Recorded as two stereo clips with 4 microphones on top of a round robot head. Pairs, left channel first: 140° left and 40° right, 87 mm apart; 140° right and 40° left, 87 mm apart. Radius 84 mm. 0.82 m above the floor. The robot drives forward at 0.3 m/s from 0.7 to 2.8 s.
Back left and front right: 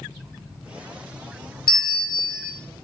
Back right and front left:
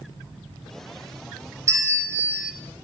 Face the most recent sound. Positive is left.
turn(degrees=120)